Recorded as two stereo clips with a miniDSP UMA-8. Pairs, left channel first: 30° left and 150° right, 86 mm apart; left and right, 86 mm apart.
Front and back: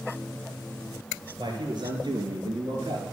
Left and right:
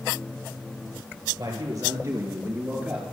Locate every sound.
1.4 s a man speaking: 120° right, 2.5 m; by 3.0 s 165° right, 2.5 m